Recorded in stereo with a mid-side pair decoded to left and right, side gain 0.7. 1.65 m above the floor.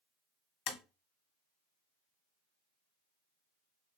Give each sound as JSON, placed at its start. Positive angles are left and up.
{"t": 0.7, "sound": "tapping", "azimuth_deg": 60, "distance_m": 0.9}